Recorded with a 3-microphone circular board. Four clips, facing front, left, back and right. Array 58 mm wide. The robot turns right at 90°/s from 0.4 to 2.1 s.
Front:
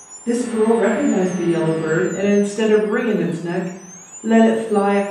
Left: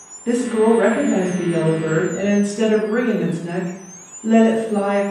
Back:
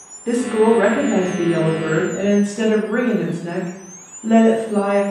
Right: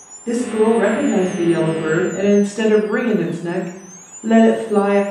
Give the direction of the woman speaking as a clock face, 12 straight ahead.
8 o'clock.